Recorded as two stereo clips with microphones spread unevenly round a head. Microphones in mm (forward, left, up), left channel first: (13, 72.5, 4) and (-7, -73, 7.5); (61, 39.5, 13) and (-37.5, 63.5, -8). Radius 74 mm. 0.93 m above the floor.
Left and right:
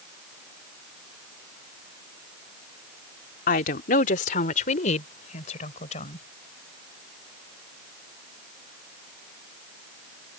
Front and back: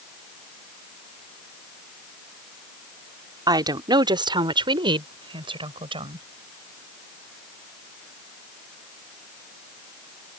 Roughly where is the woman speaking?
Behind left.